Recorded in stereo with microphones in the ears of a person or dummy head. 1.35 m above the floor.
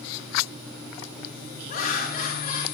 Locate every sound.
1.7 s laughter: 45° left (ahead or behind), 2 m